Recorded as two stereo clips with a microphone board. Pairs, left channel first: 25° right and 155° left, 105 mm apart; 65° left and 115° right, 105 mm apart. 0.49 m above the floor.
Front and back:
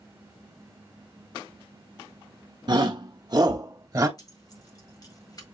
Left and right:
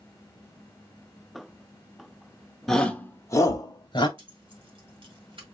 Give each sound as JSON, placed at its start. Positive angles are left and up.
{"t": 2.7, "sound": "a shout", "azimuth_deg": 155, "distance_m": 0.8}
{"t": 4.2, "sound": "keys jangling", "azimuth_deg": -75, "distance_m": 1.5}